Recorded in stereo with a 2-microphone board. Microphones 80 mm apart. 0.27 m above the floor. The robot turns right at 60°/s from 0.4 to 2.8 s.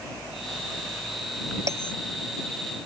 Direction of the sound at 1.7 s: 40° right (ahead or behind).